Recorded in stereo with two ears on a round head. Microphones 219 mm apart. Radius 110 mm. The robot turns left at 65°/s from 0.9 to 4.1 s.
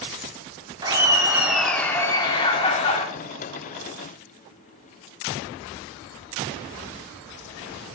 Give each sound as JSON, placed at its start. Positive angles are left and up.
{"t": 0.8, "sound": "laughter", "side_deg": -15, "distance_m": 0.9}